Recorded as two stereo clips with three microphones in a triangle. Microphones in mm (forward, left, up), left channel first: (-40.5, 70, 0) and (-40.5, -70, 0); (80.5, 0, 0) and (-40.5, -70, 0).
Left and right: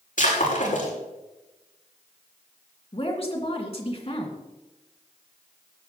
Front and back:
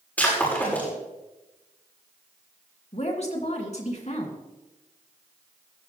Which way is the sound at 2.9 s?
55° left.